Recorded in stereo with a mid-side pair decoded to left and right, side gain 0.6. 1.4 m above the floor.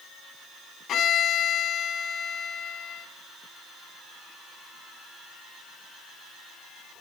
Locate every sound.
0.9 s a violin: 55° left, 3.5 m